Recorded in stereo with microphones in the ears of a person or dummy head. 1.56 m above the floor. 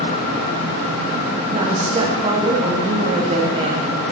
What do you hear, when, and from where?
1.5 s a woman speaking: 35° right (ahead or behind), 1.0 m